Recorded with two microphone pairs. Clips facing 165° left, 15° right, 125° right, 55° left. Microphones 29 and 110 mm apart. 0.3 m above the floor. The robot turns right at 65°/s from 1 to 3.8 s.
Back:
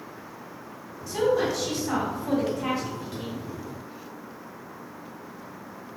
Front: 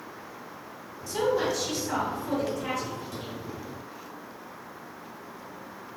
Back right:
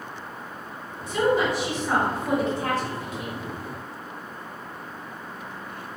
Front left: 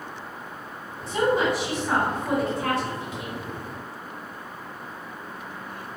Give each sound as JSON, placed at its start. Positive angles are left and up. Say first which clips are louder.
{"t": 1.1, "sound": "a woman speaking", "louder": "back 2 dB, even", "azimuth_deg": 90, "distance_m": 1.4}